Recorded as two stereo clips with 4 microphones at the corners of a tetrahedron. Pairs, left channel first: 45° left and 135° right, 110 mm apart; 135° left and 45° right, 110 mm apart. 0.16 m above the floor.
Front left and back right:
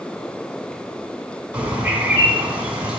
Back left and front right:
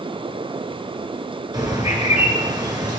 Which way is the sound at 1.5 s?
60° right.